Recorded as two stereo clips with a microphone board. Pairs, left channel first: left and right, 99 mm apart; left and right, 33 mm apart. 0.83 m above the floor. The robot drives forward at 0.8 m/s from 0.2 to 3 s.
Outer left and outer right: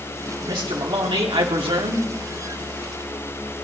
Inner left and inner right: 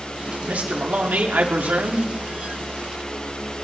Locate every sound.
0.4 s a man speaking: 55° right (ahead or behind), 2.0 m; by 2.1 s 70° right (ahead or behind), 1.8 m